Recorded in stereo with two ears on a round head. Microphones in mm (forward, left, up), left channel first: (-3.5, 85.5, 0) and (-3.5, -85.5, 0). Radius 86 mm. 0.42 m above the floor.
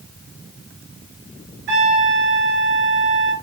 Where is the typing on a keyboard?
No typing on a keyboard in this recording.